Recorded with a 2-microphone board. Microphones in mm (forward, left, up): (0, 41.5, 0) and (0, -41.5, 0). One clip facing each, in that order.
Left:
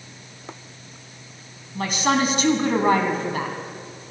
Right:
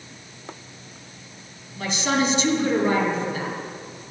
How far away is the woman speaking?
About 2 m.